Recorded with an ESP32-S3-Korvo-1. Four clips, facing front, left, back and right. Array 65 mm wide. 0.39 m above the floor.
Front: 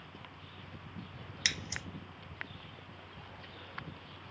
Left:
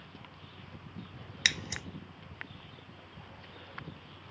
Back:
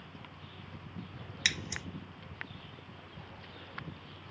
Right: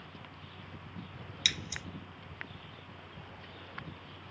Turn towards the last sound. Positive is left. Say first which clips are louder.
# left 5 dB, back 2 dB
turn(degrees=95)